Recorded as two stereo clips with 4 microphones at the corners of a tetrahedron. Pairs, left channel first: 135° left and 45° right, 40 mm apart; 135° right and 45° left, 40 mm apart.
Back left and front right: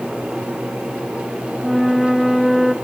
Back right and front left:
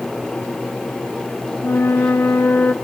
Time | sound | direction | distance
1.6 | a flute | 135° right | 1.0 m